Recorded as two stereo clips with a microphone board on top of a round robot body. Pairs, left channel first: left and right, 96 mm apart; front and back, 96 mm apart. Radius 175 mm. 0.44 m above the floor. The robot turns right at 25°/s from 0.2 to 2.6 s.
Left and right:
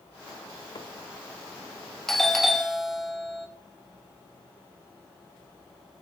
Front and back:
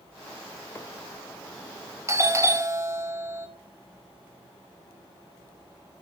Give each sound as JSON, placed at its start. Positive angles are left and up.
{"t": 0.8, "sound": "a microwave", "azimuth_deg": 60, "distance_m": 2.0}
{"t": 2.1, "sound": "a doorbell", "azimuth_deg": 175, "distance_m": 2.0}